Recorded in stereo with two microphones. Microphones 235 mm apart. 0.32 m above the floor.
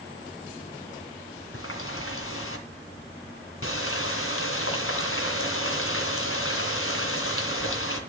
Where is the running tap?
70° left (ahead or behind), 2.5 m.